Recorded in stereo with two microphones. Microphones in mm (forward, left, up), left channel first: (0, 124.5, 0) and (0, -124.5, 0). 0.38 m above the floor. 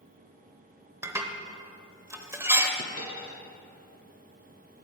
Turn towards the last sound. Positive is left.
turn(degrees=-60)  # may be behind; listen again after turning